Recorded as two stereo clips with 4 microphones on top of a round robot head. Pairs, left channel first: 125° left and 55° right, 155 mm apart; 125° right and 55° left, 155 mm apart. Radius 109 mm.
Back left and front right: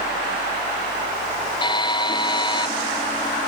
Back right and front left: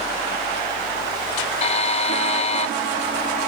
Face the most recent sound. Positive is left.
turn(degrees=-175)